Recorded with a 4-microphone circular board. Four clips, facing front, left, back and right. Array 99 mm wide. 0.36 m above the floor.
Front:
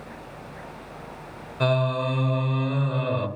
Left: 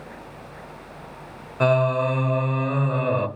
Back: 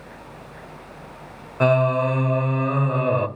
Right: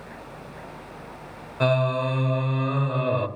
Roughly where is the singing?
Behind left.